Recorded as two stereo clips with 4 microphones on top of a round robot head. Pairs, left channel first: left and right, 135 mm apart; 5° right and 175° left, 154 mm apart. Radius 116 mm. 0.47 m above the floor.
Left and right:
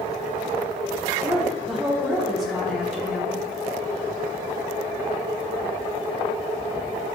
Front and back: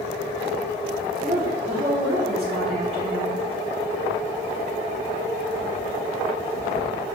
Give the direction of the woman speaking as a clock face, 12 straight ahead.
6 o'clock.